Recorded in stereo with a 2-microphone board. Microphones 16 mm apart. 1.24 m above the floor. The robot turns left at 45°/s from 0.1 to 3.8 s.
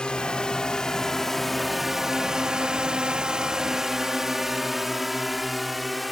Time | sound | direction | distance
0.0 | a drone | 75° left (ahead or behind) | ?